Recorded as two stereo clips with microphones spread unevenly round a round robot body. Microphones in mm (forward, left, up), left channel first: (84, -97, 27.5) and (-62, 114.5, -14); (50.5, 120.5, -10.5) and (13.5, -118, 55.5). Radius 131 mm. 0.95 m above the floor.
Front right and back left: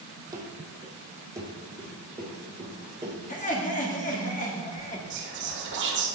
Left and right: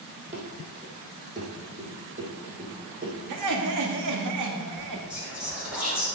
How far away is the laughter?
About 1.9 m.